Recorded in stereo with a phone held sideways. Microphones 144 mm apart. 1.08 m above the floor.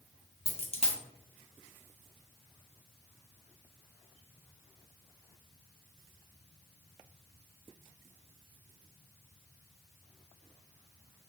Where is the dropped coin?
45° left (ahead or behind), 0.6 m.